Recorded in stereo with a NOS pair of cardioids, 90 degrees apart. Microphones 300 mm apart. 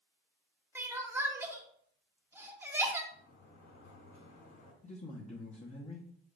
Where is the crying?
10° right, 0.9 m.